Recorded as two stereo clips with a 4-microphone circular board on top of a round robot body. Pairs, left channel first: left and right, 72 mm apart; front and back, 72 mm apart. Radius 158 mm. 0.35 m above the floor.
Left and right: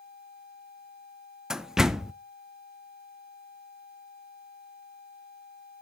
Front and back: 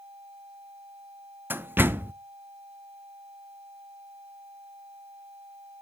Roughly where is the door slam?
Behind.